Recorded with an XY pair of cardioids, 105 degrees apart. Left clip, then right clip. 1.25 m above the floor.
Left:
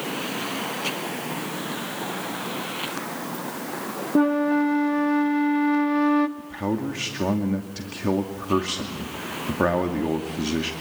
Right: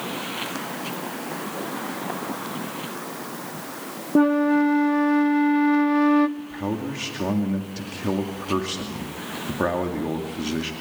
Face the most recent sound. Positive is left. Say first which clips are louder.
# left 1 dB
turn(degrees=10)